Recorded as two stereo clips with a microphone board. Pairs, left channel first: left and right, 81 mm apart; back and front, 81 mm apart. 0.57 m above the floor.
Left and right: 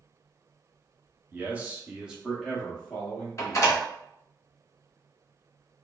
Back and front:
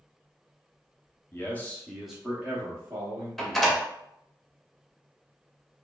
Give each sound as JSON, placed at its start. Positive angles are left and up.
{"t": 1.3, "sound": "a man speaking", "azimuth_deg": -145, "distance_m": 0.7}
{"t": 3.4, "sound": "a door slam", "azimuth_deg": 90, "distance_m": 0.6}